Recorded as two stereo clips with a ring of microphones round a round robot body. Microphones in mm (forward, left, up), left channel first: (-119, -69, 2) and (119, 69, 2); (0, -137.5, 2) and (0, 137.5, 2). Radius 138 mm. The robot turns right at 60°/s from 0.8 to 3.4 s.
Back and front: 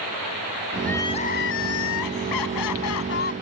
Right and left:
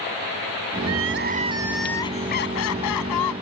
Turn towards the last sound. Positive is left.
turn(degrees=-85)